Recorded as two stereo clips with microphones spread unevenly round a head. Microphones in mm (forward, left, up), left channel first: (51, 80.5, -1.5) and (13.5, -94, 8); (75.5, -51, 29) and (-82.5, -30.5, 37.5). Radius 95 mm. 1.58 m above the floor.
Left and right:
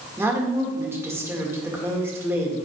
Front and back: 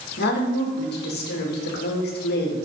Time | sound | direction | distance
0.2 | a woman speaking | 25° right | 1.8 m